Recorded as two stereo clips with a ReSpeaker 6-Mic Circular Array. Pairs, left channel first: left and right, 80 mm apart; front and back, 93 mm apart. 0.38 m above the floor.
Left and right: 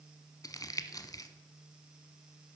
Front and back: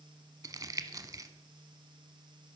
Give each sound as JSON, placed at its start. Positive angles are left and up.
{"t": 0.4, "sound": "crumpling", "azimuth_deg": 130, "distance_m": 0.7}